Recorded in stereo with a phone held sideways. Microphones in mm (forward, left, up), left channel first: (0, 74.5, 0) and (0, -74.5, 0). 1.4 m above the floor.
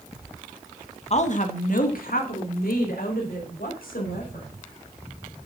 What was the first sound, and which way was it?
A woman speaking, 45° left (ahead or behind).